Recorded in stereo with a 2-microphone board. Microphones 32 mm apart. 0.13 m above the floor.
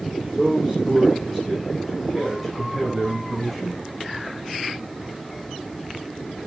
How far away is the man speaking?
About 6.5 m.